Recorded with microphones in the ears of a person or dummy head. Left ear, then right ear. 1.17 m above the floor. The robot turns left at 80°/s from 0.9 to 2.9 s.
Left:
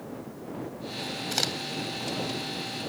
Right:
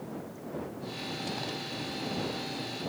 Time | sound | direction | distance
1.3 | a crack | 85° left | ?